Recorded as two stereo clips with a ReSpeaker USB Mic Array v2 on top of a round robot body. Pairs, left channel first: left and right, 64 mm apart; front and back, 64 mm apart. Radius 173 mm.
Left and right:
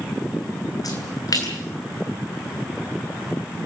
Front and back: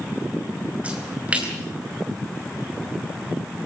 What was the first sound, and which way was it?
A splash, 110° left.